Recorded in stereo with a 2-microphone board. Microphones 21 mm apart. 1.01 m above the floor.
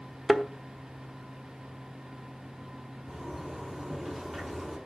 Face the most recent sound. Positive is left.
turn(degrees=-15)  # may be behind; listen again after turning